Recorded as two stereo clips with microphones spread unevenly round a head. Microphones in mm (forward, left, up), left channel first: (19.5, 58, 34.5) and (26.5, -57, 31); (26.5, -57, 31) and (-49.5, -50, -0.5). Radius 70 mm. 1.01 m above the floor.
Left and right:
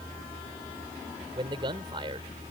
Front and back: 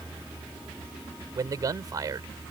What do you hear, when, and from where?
1.4 s a man speaking: 140° right